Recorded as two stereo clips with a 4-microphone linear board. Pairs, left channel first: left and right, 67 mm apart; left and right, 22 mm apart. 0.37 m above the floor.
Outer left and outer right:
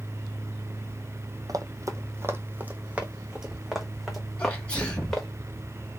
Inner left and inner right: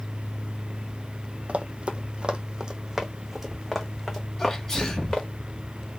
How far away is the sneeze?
About 1.8 m.